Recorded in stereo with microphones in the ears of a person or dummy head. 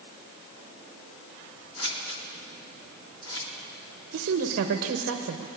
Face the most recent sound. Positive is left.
turn(degrees=-50)  # may be behind; listen again after turning